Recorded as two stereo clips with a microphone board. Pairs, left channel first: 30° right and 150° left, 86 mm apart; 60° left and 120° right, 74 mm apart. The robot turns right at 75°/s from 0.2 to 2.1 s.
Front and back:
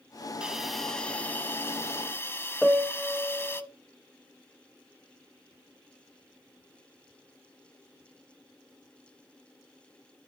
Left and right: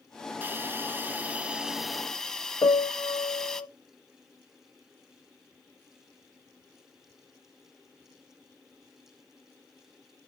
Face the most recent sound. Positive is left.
turn(degrees=55)